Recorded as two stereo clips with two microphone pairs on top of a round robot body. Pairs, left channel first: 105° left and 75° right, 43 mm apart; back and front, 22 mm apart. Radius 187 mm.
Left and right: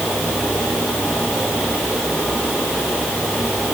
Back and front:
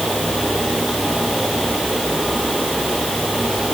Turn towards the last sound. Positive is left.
No sound to turn to.